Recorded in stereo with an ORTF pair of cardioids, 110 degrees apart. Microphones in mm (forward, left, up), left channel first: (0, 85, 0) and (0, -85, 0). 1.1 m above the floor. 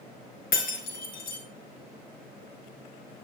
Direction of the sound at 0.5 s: 65° left.